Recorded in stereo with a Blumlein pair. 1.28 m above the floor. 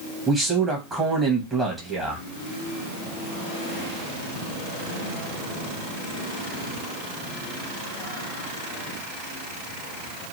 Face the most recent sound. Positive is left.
turn(degrees=-10)